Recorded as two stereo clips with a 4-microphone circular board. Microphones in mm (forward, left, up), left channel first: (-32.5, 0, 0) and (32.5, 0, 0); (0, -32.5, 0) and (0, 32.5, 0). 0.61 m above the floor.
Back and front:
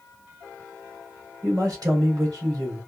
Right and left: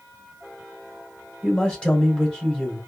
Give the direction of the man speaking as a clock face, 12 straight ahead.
1 o'clock.